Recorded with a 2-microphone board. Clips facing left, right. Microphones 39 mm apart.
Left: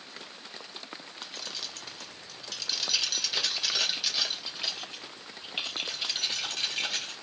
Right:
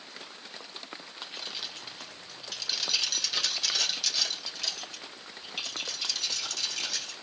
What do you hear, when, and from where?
1.2 s keys jangling: 20° right (ahead or behind), 2 m; by 7.1 s 40° left (ahead or behind), 3.5 m